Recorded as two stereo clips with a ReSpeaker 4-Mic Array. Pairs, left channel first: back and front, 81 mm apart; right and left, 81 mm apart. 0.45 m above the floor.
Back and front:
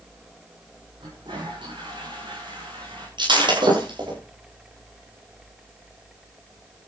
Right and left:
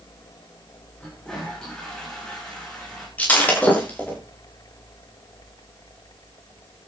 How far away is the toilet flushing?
About 8 m.